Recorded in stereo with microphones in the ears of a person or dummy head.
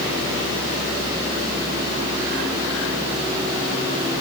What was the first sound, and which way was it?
Only background noise.